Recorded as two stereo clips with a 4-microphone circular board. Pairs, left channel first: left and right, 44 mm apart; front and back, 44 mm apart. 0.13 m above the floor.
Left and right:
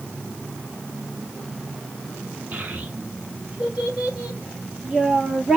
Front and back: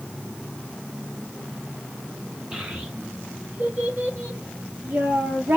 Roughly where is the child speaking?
Behind right.